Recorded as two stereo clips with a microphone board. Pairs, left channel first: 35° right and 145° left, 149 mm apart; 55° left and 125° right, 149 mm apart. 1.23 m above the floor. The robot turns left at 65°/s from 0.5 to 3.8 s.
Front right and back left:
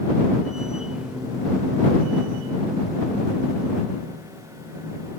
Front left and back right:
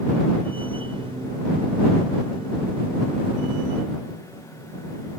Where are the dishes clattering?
No dishes clattering in this recording.